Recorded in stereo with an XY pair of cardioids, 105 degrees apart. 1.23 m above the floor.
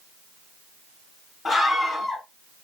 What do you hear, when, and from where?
1.4 s a scream: 25° left, 3 m